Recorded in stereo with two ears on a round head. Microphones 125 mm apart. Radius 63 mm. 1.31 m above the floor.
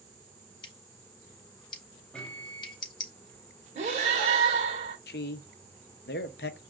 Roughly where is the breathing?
Right.